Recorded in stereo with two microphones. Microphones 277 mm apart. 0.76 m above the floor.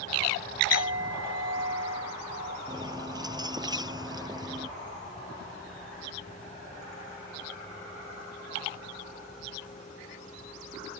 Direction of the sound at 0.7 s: 45° right (ahead or behind).